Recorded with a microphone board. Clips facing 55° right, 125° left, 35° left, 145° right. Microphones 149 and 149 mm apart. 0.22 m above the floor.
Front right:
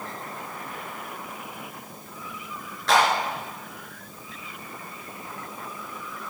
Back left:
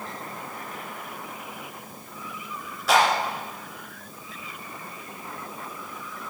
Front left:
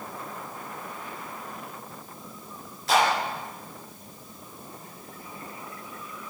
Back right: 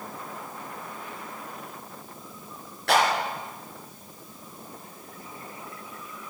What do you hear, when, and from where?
2.9 s a clap: 155° right, 3 m